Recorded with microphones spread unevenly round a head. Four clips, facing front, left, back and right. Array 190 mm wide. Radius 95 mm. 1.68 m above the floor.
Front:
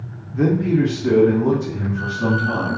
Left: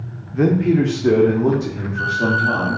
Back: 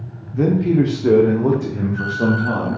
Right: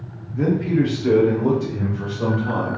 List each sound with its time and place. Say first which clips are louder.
0.3 s a man speaking: left 4 dB, back 1 dB; 75° left, 0.5 m; by 2.8 s 175° left, 1.3 m